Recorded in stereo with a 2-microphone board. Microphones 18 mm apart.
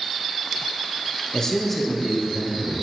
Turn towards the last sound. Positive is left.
turn(degrees=-15)  # may be behind; listen again after turning